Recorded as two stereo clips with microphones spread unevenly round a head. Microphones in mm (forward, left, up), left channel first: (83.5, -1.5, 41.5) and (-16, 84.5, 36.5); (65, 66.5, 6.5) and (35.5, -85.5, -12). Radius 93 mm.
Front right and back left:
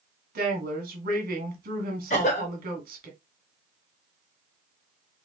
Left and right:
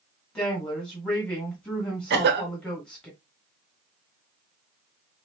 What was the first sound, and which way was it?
A woman speaking, 165° left.